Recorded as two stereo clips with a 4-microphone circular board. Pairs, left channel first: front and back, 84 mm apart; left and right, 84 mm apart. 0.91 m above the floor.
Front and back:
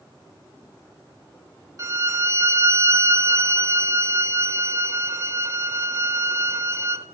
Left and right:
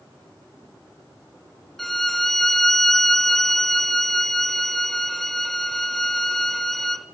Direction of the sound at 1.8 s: 175° left.